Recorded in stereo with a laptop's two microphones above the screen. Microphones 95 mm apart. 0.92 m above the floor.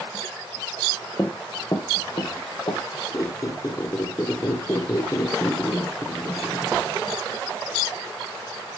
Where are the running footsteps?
30° left (ahead or behind), 1.8 m; by 2.8 s 60° left (ahead or behind), 3 m.